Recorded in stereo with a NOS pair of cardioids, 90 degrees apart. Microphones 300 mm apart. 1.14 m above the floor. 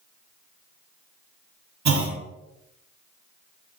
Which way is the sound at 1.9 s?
65° right.